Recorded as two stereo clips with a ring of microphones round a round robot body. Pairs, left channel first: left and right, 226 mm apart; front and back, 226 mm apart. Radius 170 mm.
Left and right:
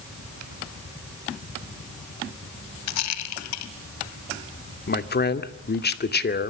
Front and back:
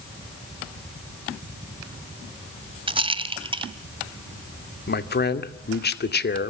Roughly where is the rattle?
Left.